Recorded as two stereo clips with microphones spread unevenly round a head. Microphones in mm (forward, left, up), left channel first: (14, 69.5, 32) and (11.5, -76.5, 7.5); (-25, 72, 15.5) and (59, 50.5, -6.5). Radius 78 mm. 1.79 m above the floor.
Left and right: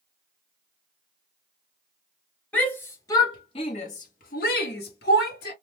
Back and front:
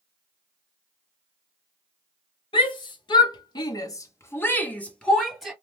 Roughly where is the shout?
Behind.